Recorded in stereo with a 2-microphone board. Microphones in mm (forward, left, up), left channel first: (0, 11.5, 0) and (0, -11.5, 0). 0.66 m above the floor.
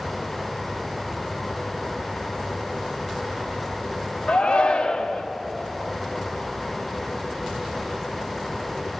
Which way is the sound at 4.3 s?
50° left (ahead or behind).